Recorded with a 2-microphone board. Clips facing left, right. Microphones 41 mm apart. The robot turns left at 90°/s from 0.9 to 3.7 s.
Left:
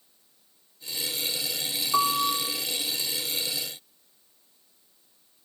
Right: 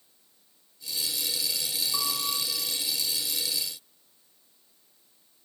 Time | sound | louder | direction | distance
1.9 | a piano | left 11 dB | 130° left | 3.5 m